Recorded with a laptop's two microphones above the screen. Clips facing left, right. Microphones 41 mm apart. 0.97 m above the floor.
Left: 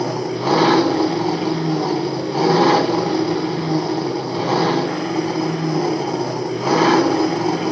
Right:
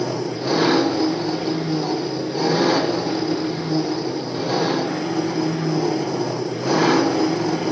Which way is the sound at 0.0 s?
65° left (ahead or behind).